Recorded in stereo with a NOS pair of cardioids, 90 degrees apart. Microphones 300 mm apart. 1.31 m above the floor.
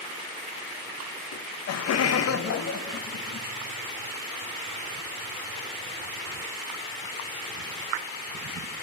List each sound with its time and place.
1.3 s laughter: 70° left, 1.2 m; by 3.5 s 40° left, 2.5 m